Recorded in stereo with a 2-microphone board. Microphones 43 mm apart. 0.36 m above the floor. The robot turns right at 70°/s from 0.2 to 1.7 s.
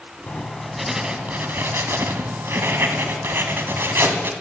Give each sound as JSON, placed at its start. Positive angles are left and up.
{"t": 0.3, "sound": "writing", "azimuth_deg": 145, "distance_m": 1.4}